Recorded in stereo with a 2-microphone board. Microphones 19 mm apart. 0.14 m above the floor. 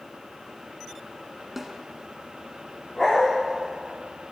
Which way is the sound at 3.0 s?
15° left (ahead or behind).